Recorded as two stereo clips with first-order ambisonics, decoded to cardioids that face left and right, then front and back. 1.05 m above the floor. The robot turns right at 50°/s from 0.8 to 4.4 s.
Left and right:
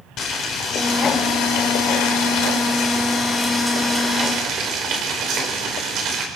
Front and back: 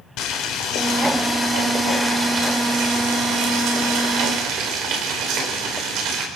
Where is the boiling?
40° left, 4 m; by 6.3 s 140° right, 4 m.